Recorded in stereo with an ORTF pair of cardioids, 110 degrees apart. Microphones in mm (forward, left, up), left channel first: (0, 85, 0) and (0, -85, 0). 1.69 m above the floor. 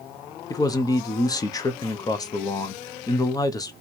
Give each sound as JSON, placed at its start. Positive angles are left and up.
{"t": 0.5, "sound": "a man speaking", "azimuth_deg": 20, "distance_m": 0.9}